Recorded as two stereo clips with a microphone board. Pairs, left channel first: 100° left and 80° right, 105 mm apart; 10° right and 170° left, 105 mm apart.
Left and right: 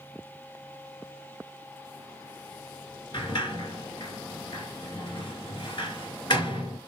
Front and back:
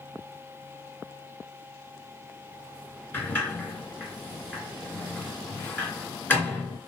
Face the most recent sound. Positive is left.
turn(degrees=60)